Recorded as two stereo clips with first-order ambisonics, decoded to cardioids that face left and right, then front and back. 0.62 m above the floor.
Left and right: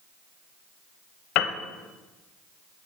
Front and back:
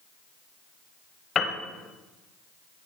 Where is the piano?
65° left, 0.7 m.